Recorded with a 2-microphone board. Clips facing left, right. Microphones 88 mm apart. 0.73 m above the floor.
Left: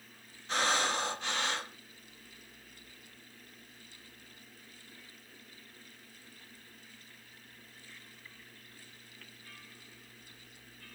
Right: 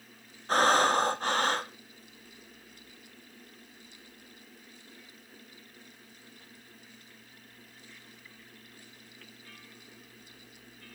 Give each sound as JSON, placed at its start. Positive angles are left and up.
{"t": 0.5, "sound": "breathing", "side_deg": -45, "distance_m": 0.6}